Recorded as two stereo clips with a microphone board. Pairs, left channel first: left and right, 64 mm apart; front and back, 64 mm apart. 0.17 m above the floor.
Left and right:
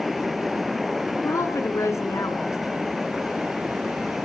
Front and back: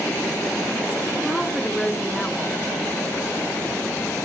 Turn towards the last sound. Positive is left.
turn(degrees=85)